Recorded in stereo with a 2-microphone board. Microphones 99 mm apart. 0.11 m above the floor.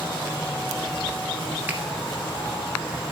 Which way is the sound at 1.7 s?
20° right (ahead or behind).